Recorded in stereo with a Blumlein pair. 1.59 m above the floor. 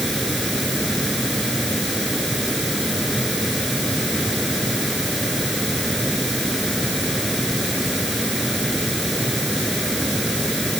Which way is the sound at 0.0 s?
Straight ahead.